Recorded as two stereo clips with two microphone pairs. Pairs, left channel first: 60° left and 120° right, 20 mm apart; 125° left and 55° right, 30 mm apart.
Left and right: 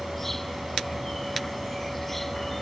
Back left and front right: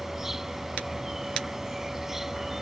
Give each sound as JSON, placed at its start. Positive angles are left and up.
{"t": 0.0, "sound": "an insect", "azimuth_deg": 0}